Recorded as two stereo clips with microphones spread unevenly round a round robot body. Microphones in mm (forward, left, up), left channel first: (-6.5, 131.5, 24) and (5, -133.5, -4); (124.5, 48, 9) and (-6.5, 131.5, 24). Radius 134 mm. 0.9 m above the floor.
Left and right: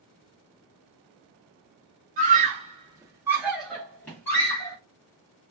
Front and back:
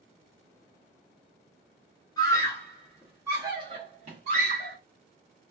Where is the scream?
70° right, 0.9 m; by 4.8 s 170° left, 1.2 m.